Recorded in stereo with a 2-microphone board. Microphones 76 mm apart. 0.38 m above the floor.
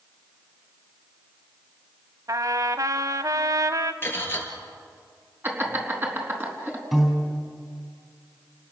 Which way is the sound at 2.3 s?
50° right (ahead or behind).